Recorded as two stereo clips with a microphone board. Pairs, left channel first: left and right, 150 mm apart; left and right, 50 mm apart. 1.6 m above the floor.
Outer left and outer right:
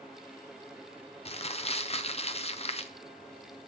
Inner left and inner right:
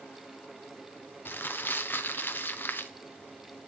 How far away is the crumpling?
About 0.6 m.